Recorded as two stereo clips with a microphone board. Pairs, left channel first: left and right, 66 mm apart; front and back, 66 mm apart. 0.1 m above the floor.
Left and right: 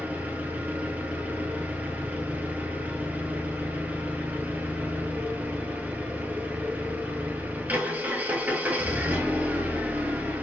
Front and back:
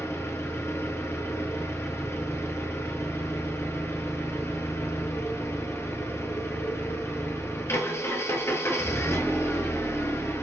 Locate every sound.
0.0 s an engine running: 35° right, 1.4 m